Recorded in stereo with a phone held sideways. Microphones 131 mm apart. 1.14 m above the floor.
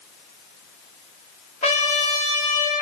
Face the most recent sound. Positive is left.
turn(degrees=60)  # may be behind; listen again after turning